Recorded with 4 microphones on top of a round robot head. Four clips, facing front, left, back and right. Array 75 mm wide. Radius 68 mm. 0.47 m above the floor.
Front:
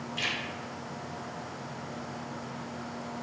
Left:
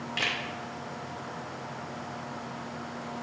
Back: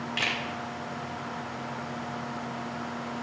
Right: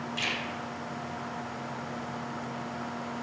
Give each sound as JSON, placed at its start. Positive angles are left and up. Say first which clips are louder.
{"t": 0.2, "sound": "a camera shutter", "louder": "left 3 dB, back 3 dB", "azimuth_deg": 135, "distance_m": 0.5}